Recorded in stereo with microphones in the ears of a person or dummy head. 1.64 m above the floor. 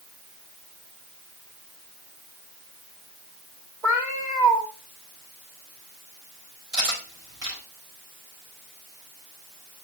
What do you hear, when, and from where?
3.8 s a cat meowing: 15° right (ahead or behind), 1.8 m
6.7 s cutlery clinking: 70° right (ahead or behind), 5 m